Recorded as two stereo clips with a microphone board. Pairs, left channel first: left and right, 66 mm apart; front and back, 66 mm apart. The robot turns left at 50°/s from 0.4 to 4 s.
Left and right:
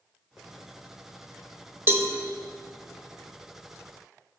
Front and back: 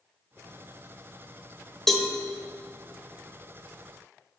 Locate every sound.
1.9 s a cowbell: 80° right, 0.9 m; by 2.1 s 90° right, 0.9 m